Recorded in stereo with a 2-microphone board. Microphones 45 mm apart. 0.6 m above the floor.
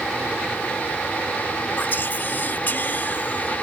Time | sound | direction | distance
1.8 | whispering | 45° left (ahead or behind) | ?